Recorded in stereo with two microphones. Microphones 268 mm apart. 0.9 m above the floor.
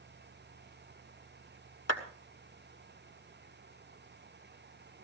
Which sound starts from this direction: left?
A clap, at 1.9 s.